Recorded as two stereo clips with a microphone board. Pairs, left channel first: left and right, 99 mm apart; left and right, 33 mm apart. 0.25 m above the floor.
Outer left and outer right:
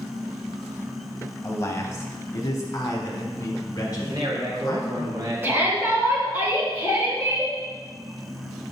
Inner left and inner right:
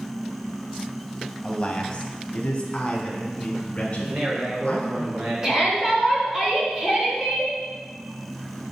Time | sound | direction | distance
1.4 | a man speaking | 30° left (ahead or behind) | 1.1 m
4.0 | a man speaking | 50° right (ahead or behind) | 2.5 m
5.4 | a shout | 25° right (ahead or behind) | 2.5 m